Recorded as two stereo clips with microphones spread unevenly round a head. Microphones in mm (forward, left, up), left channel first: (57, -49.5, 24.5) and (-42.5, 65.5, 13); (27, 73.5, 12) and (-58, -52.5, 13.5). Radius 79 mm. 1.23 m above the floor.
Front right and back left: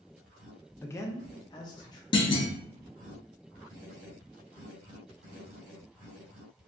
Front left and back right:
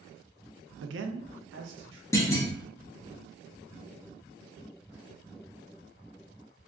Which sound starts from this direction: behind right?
A man speaking, at 0.8 s.